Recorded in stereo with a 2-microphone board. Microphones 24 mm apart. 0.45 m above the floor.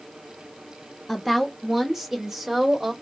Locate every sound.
1.1 s a woman speaking: centre (ahead or behind), 1.0 m; by 2.9 s 15° right (ahead or behind), 1.6 m